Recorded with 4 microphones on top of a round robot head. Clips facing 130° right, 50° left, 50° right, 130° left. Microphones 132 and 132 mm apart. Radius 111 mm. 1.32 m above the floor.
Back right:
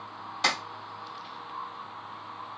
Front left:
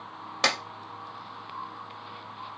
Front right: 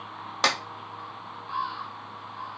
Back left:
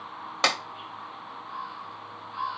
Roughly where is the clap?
Ahead left.